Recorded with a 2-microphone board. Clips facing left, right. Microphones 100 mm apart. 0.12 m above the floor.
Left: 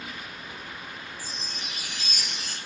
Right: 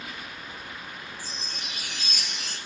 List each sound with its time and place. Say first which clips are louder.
1.2 s a chime: even; 45° left (ahead or behind), 2 m